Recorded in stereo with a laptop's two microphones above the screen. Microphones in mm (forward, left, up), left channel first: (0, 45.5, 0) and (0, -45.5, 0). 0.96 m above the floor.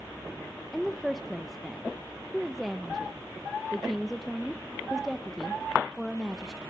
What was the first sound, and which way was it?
A woman speaking, centre (ahead or behind).